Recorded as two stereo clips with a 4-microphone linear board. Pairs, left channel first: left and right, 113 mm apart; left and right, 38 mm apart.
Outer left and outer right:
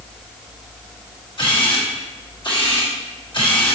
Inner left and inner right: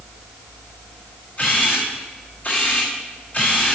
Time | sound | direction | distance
1.4 | a camera shutter | 45° left (ahead or behind) | 4 m